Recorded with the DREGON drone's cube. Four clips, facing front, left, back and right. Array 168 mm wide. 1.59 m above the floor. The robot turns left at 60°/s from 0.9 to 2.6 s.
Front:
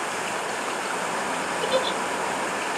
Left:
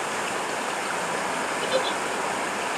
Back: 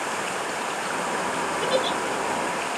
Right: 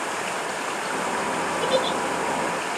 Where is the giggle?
125° right, 1.1 m; by 2.0 s 145° right, 1.1 m.